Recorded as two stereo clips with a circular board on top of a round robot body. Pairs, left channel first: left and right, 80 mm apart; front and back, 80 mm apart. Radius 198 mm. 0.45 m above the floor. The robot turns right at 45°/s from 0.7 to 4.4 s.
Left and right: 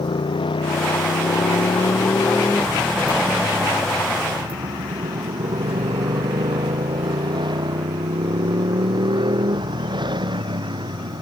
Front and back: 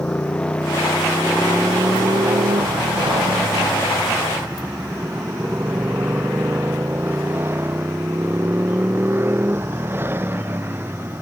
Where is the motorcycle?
80° left; by 11.2 s 115° right.